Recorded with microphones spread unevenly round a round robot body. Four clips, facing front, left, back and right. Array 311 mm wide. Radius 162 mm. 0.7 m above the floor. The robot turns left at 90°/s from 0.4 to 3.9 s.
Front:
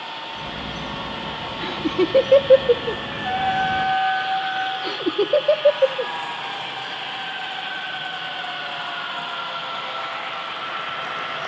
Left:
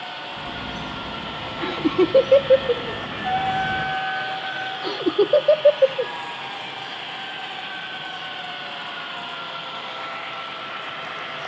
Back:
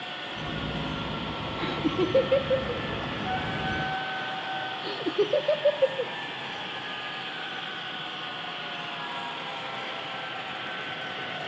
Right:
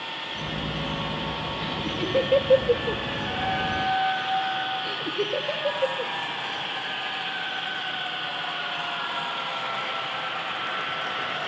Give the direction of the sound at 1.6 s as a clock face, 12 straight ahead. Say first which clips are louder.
Left 15 dB, front 5 dB; 9 o'clock.